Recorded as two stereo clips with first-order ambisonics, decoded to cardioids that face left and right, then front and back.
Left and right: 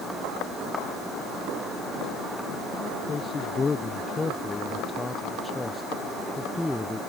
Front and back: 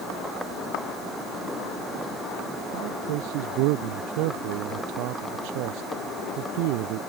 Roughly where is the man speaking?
Behind.